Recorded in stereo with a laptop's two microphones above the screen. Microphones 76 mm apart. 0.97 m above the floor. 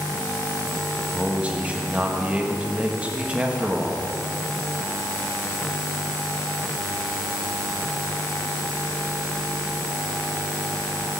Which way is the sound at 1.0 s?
15° right (ahead or behind).